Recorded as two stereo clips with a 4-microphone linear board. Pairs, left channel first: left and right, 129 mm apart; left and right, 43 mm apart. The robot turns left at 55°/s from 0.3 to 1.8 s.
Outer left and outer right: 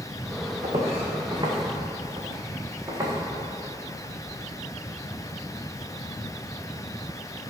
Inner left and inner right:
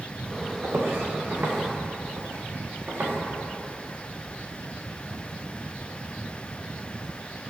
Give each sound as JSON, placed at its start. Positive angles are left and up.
{"t": 0.6, "sound": "footsteps", "side_deg": -65, "distance_m": 2.5}